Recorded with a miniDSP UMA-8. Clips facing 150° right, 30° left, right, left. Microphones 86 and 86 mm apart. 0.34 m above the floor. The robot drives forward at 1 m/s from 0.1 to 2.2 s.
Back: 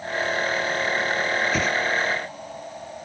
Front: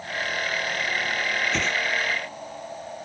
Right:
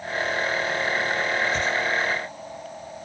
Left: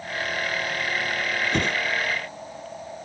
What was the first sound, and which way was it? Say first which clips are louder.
A whoosh: back 3 dB, even; 125° left.